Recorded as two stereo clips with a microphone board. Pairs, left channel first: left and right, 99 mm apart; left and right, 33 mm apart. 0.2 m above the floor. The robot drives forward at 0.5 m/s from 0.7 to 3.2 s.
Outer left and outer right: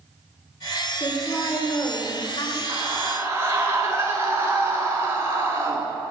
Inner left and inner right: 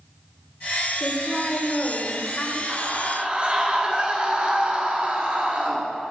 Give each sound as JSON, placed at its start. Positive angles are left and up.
{"t": 1.0, "sound": "a woman speaking", "side_deg": 45, "distance_m": 3.0}
{"t": 2.7, "sound": "a scream", "side_deg": -30, "distance_m": 1.7}